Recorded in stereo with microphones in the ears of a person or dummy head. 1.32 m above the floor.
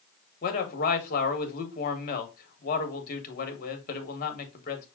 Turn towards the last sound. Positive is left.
turn(degrees=45)  # may be behind; listen again after turning